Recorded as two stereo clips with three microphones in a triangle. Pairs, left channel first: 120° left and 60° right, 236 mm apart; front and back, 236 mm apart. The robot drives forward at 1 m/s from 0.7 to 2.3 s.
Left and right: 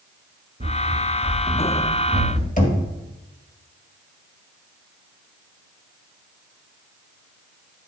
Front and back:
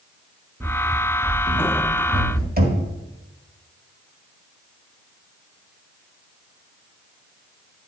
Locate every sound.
0.6 s running footsteps: 115° right, 0.9 m; by 2.5 s 125° right, 2 m
2.6 s knocking: 160° left, 1.6 m